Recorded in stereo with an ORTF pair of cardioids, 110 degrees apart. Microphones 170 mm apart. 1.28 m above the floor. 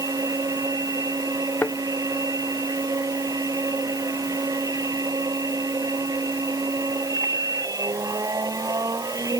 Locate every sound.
0.0 s a machine running: 20° right
1.6 s a thud: 10° left